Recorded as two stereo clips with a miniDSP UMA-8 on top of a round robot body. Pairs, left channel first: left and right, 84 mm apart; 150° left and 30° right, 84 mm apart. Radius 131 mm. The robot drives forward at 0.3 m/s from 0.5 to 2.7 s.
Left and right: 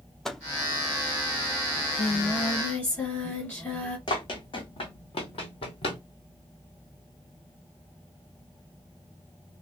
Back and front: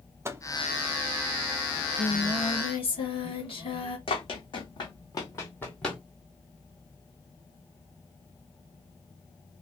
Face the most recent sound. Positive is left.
turn(degrees=60)